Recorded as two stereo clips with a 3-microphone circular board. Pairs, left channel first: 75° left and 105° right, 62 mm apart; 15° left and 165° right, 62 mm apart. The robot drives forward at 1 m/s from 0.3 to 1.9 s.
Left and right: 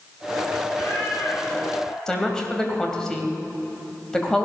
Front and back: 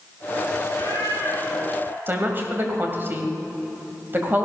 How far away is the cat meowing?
About 5 m.